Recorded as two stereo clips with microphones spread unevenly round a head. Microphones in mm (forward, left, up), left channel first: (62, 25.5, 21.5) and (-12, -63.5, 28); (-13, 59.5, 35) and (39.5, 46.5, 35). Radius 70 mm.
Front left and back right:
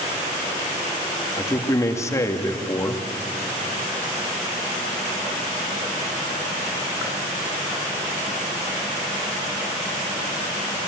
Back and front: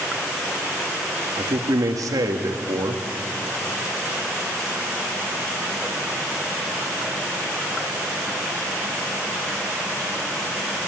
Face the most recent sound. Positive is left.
turn(degrees=-15)